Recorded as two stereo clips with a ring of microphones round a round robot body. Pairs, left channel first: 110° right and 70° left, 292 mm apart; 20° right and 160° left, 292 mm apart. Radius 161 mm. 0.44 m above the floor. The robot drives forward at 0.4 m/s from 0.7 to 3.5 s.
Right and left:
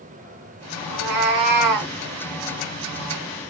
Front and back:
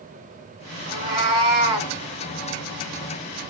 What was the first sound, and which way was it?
A cat meowing, 75° left.